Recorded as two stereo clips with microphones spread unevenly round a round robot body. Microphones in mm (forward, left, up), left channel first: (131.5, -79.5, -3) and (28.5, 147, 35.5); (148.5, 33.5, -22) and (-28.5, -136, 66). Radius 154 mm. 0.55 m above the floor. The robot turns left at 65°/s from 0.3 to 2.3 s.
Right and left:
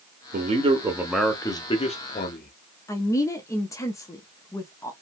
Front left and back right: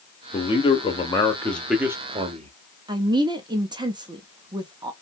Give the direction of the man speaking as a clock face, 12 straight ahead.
10 o'clock.